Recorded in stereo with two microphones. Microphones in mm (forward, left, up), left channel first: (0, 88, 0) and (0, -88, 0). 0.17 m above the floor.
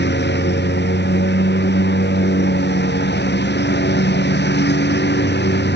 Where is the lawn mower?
85° left; by 5.8 s 80° left.